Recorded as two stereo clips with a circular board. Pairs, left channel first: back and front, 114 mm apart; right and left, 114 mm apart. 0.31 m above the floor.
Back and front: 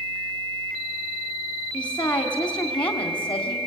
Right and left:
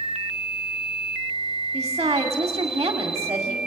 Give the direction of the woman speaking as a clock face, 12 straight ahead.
7 o'clock.